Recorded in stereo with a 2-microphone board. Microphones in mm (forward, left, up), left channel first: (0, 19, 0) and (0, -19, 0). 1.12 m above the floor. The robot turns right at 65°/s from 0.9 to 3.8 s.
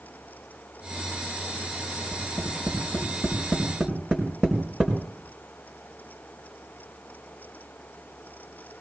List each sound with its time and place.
2.1 s tapping: 80° left, 4.5 m; by 5.0 s 20° right (ahead or behind), 4.5 m